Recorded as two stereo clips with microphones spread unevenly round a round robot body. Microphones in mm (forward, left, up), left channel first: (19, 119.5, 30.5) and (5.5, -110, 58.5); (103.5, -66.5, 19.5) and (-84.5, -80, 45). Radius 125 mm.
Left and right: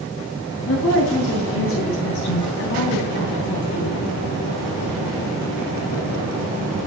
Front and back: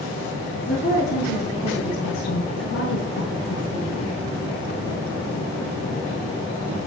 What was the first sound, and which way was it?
A woman speaking, 60° left.